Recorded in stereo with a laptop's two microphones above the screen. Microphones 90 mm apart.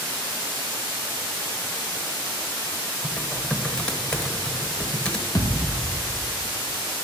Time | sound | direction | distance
3.0 | typing on a keyboard | 10° left (ahead or behind) | 1.1 m
5.3 | a thud | 35° left (ahead or behind) | 0.8 m